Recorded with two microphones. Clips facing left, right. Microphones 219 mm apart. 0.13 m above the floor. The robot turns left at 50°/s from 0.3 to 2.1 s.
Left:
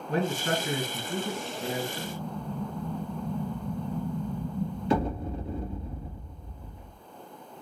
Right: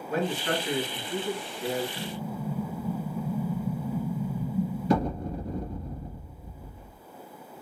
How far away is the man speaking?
About 1.6 m.